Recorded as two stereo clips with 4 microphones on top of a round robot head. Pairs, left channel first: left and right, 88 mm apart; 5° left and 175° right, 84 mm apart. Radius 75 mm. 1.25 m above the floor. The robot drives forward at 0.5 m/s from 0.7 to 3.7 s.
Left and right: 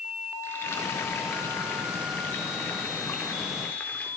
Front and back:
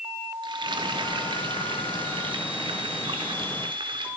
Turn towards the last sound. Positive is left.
turn(degrees=165)